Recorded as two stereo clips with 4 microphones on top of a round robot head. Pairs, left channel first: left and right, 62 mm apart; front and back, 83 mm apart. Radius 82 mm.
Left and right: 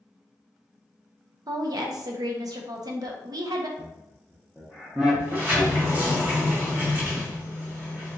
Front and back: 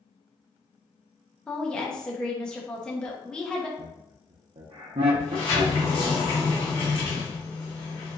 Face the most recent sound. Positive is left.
turn(degrees=-30)